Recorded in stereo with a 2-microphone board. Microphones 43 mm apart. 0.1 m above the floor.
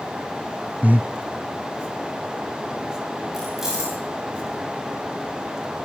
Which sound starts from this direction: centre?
Keys jangling, at 3.3 s.